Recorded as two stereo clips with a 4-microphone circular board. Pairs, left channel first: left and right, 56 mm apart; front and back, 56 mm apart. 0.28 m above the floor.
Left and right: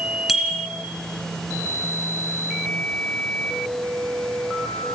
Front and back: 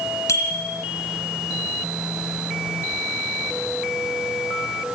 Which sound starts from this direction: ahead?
A bicycle bell, at 0.3 s.